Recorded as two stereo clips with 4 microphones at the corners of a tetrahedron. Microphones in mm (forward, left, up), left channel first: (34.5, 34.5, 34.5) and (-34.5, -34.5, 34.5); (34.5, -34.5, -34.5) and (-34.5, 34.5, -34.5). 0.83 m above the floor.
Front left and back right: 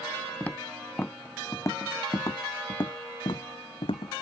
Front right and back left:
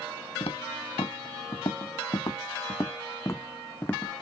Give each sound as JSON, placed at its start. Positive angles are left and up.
{"t": 0.4, "sound": "footsteps", "azimuth_deg": -30}